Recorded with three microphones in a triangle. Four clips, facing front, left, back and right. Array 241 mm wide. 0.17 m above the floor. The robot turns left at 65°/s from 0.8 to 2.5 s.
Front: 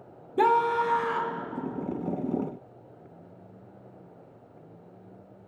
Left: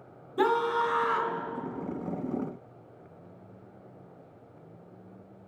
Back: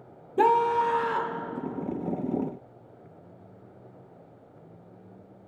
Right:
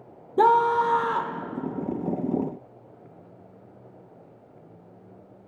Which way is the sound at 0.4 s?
95° right.